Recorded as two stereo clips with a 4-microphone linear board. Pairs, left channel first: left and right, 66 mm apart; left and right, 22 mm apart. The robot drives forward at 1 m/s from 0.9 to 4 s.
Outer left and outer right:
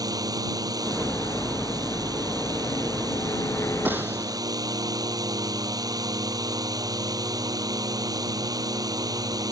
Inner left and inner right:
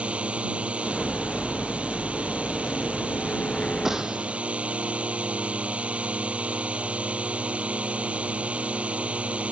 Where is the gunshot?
30° right (ahead or behind).